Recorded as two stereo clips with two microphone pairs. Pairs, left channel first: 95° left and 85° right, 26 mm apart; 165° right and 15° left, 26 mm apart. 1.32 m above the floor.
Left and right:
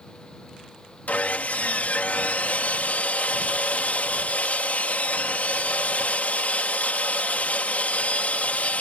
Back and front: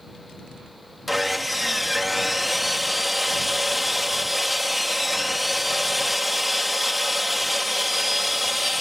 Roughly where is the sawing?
Left.